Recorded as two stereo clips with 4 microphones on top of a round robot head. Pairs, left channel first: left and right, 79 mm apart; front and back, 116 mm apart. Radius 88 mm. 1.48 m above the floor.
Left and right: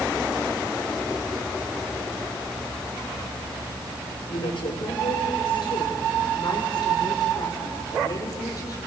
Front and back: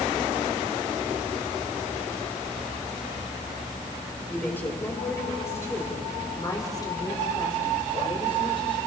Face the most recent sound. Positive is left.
turn(degrees=45)